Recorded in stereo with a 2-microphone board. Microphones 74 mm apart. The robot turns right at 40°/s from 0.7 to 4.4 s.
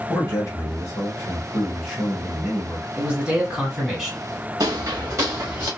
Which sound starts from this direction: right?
Footsteps, at 4.6 s.